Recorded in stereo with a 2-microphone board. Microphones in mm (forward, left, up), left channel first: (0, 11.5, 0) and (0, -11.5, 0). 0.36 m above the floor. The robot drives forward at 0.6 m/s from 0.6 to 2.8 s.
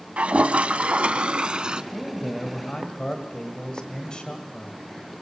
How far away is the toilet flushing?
About 0.7 m.